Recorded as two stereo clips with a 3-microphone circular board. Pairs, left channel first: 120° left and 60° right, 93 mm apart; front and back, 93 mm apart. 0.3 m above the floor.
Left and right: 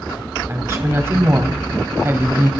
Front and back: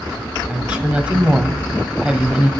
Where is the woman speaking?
105° right, 1.4 m.